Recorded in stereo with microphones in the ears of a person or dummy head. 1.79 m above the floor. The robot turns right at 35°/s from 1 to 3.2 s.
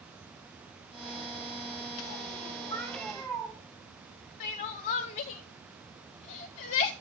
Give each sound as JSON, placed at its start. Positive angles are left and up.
{"t": 2.7, "sound": "a cat meowing", "side_deg": 15, "distance_m": 5.0}
{"t": 4.4, "sound": "crying", "side_deg": 25, "distance_m": 0.7}